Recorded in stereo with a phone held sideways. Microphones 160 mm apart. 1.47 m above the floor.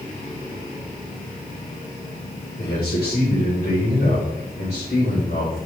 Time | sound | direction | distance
2.6 | a man speaking | 85° left | 5 m